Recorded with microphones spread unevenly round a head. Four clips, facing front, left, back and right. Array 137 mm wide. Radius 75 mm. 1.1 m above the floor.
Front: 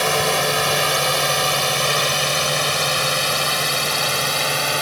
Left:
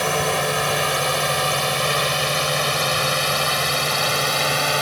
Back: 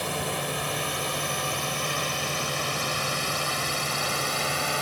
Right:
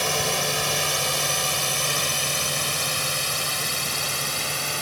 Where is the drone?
15° left; by 4.8 s 40° left.